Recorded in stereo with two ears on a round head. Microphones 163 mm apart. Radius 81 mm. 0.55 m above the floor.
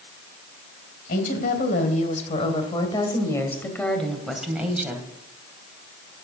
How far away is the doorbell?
I don't hear a doorbell.